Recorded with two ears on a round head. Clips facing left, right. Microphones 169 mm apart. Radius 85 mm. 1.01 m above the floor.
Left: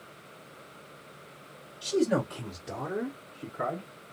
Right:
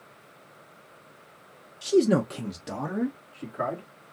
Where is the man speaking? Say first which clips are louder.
Right 5 dB; 25° right (ahead or behind), 0.6 m; by 3.9 s 75° right (ahead or behind), 2.5 m.